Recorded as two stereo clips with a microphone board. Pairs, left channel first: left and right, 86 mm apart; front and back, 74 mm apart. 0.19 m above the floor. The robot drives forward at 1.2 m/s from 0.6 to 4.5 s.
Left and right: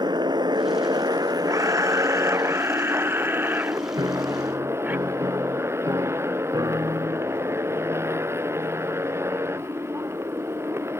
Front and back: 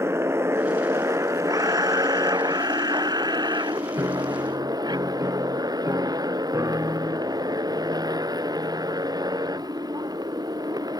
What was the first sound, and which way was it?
A motorcycle, 125° right.